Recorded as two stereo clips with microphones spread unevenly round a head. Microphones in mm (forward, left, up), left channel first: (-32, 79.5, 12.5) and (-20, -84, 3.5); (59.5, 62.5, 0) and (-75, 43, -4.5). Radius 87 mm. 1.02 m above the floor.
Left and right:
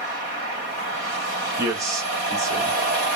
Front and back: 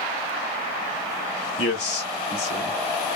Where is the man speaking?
15° right, 1.5 m.